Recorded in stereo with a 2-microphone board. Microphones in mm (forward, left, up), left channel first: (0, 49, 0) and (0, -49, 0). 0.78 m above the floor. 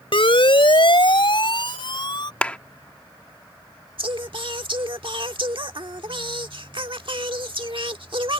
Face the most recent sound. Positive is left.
turn(degrees=-60)  # may be behind; listen again after turning